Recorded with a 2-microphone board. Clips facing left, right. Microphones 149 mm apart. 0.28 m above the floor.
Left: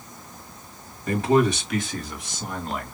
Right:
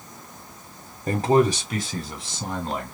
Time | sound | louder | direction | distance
1.1 | a man speaking | right 1 dB | 40° right (ahead or behind) | 1.6 m